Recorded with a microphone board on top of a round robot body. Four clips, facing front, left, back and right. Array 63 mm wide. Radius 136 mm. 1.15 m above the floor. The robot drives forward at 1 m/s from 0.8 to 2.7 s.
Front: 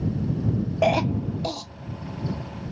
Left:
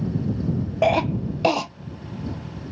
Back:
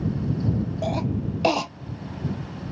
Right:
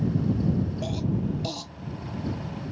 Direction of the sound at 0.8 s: 55° left.